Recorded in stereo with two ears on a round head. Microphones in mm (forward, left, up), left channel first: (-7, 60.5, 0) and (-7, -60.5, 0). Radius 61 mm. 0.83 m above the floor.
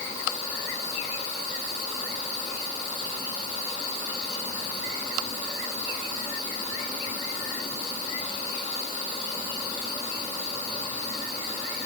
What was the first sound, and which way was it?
Only background noise.